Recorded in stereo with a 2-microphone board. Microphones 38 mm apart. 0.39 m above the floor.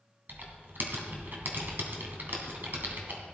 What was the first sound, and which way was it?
Typing on a keyboard, 60° right (ahead or behind).